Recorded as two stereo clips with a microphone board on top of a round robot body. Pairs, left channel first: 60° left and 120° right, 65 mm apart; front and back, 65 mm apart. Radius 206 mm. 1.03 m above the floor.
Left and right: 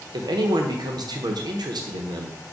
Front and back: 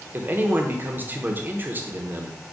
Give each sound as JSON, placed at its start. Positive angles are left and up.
{"t": 0.1, "sound": "a man speaking", "azimuth_deg": -120, "distance_m": 0.7}